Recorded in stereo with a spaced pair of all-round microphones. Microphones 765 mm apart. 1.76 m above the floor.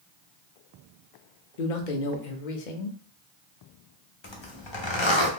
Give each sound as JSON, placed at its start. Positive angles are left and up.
{"t": 1.6, "sound": "a man speaking", "side_deg": 75, "distance_m": 0.8}
{"t": 4.2, "sound": "a zipper", "side_deg": 40, "distance_m": 0.8}